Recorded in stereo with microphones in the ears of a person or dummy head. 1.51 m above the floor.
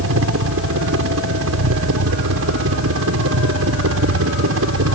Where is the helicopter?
70° right (ahead or behind).